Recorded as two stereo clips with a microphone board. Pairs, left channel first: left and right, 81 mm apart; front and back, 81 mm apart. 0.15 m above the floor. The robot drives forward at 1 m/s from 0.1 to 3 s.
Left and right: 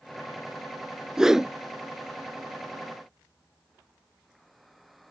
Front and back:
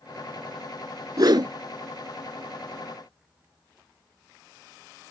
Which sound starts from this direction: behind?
A whoosh, at 1.2 s.